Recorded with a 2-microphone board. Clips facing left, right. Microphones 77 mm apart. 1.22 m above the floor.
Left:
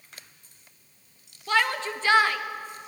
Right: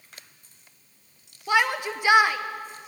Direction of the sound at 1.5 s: 15° right (ahead or behind).